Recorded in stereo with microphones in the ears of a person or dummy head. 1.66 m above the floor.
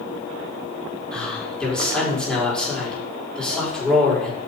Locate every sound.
1.1 s a man speaking: 10° left (ahead or behind), 4.5 m